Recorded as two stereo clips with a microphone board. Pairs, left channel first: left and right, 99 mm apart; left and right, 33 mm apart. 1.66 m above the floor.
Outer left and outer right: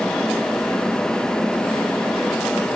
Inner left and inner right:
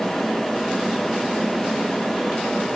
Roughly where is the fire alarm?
No fire alarm in this recording.